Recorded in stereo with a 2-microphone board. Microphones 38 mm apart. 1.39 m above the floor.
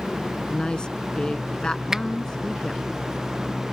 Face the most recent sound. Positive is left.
turn(degrees=-15)  # may be behind; listen again after turning